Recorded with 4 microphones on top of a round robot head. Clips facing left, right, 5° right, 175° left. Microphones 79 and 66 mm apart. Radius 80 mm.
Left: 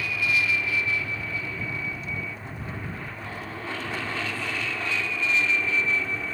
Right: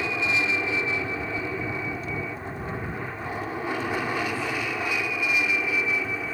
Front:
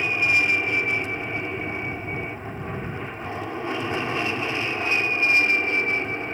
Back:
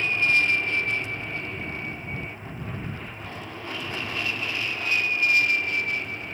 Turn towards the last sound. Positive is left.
turn(degrees=-20)